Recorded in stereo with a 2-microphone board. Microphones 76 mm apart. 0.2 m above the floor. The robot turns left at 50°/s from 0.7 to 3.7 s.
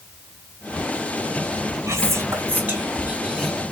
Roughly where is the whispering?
Right.